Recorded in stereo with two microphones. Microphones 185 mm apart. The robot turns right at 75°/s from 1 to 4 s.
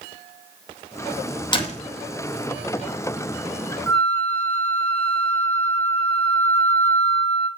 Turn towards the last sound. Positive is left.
turn(degrees=10)  # may be behind; listen again after turning